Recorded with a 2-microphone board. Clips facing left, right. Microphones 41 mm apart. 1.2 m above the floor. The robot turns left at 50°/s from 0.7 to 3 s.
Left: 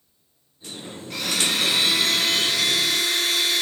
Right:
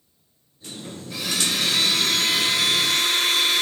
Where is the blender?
50° left, 8.5 m; by 3.6 s 45° right, 8.5 m.